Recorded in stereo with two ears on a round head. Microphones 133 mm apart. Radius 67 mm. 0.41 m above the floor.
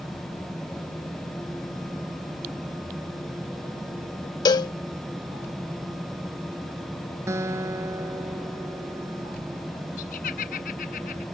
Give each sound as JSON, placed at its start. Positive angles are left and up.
{"t": 4.5, "sound": "a cowbell", "side_deg": 30}
{"t": 7.3, "sound": "a guitar", "side_deg": -20}
{"t": 10.0, "sound": "laughter", "side_deg": 65}